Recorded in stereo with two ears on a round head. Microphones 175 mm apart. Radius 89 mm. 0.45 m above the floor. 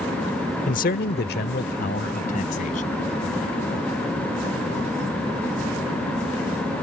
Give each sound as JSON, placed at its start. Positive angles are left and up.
{"t": 0.7, "sound": "a man speaking", "side_deg": 40}